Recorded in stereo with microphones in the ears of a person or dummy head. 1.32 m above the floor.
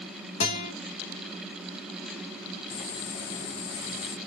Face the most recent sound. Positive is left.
turn(degrees=40)  # may be behind; listen again after turning